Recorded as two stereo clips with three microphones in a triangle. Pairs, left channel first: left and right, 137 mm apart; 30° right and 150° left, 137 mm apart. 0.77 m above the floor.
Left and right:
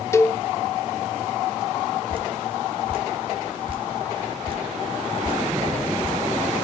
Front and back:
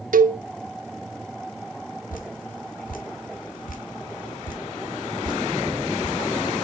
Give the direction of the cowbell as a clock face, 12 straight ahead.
7 o'clock.